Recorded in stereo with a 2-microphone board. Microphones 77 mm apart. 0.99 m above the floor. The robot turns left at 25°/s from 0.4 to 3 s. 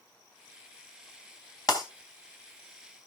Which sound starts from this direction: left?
Breaking glass, at 1.7 s.